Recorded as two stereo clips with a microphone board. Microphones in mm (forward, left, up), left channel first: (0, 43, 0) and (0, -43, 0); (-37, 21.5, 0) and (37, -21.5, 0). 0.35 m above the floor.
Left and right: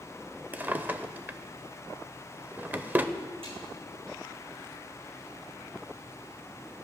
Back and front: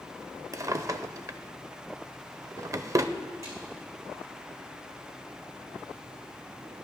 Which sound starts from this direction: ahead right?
A drawer, at 0.5 s.